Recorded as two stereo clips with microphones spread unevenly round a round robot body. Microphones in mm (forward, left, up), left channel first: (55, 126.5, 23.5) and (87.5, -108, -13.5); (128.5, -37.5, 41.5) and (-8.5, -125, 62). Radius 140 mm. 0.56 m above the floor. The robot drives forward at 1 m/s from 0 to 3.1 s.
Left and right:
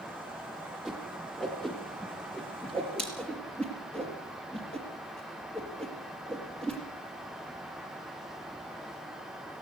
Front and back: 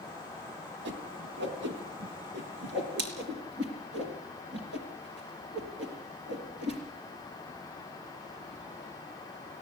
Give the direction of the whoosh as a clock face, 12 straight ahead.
6 o'clock.